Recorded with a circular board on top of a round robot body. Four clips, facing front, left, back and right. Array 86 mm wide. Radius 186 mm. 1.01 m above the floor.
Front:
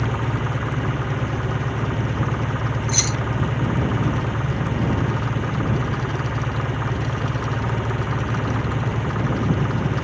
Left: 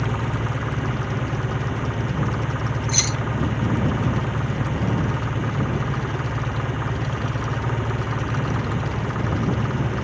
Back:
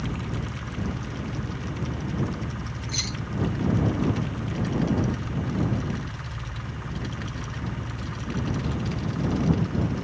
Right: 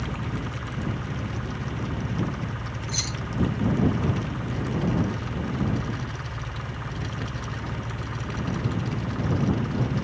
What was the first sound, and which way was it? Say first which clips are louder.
An engine running: left 6 dB, front 7 dB; 40° left.